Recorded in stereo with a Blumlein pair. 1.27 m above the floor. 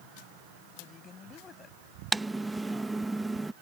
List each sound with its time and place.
0.8 s a woman speaking: 20° left
2.1 s typing on a keyboard: 10° right